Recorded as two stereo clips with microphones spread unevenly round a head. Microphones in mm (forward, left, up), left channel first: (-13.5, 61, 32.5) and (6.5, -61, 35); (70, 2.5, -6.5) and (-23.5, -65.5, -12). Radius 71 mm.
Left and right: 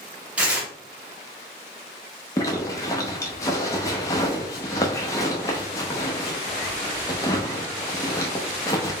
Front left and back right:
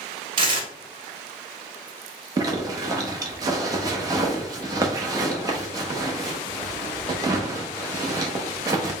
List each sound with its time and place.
0.4 s tearing paper: 155° right, 0.9 m
2.4 s a zipper: 160° left, 0.7 m